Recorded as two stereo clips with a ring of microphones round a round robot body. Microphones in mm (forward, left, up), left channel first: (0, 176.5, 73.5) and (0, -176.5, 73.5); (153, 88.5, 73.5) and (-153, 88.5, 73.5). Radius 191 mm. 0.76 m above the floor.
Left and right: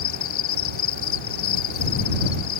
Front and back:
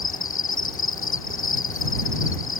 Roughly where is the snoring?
I don't hear snoring.